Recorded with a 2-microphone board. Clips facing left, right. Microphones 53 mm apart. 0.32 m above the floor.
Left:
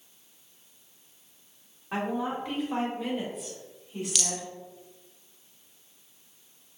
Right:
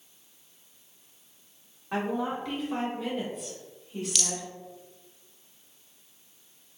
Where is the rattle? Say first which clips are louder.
Even; centre (ahead or behind), 0.5 m.